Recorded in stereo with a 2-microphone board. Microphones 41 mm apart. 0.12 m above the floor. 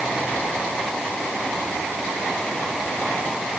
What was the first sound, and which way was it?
Only background noise.